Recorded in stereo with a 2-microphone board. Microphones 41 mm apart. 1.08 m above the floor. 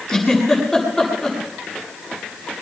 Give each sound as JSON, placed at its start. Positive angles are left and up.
{"t": 0.1, "sound": "a giggle", "side_deg": 5, "distance_m": 8.5}